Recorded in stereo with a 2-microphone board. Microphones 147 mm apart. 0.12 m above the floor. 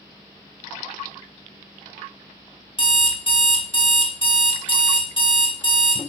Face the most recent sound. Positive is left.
turn(degrees=40)  # may be behind; listen again after turning